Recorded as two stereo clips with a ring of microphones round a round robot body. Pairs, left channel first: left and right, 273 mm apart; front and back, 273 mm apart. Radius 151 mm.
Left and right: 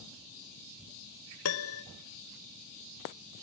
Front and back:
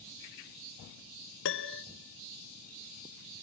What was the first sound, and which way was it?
A piano, 50° left.